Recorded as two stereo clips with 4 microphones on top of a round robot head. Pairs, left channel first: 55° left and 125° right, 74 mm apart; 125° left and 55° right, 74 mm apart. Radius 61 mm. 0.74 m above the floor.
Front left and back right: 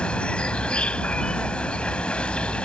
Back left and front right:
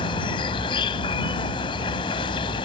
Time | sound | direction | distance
0.0 | an insect | 135° left | ?